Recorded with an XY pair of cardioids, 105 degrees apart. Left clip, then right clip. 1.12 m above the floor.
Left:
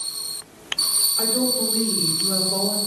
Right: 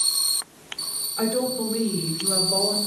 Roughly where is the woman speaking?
Ahead right.